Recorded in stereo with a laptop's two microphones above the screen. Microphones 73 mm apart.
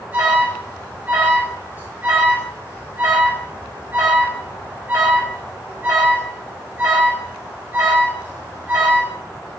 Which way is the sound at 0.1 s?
25° right (ahead or behind).